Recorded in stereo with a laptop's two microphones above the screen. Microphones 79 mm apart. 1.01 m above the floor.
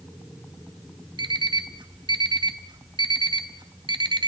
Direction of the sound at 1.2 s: 75° right (ahead or behind).